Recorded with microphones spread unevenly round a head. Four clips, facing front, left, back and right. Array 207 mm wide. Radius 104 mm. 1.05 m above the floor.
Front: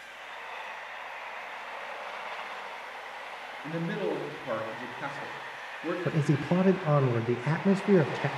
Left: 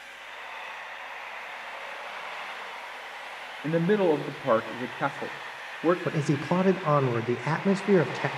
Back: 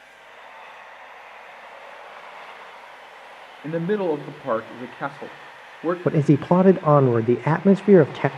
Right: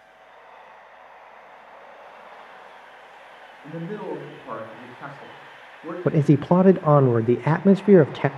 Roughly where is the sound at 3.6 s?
Behind left.